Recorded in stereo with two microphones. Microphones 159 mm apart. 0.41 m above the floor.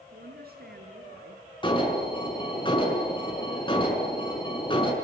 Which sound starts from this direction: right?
A woman speaking, at 0.1 s.